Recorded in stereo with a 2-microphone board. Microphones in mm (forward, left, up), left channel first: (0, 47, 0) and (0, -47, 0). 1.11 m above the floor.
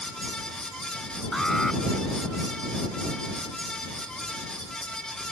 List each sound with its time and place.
1.3 s an alarm: 5° left (ahead or behind)